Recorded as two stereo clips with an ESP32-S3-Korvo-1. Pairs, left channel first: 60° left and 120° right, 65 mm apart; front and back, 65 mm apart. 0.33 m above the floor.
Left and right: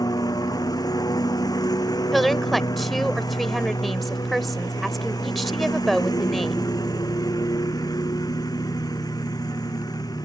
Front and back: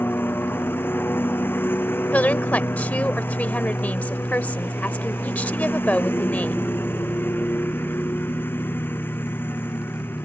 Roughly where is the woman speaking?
Ahead right.